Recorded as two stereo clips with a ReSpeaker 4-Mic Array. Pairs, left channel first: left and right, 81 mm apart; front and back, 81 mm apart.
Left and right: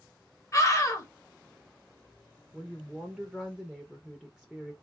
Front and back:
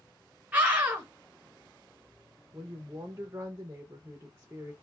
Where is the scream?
115° left, 0.7 m.